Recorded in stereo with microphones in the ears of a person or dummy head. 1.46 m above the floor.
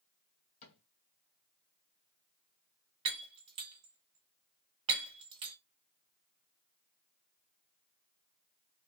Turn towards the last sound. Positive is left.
turn(degrees=-25)  # may be behind; listen again after turning